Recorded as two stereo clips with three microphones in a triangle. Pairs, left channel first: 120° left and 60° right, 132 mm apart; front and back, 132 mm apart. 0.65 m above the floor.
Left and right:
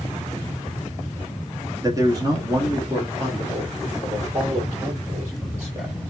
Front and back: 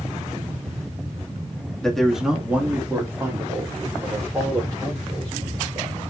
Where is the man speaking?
80° right, 1.0 m; by 6.0 s 125° right, 3 m.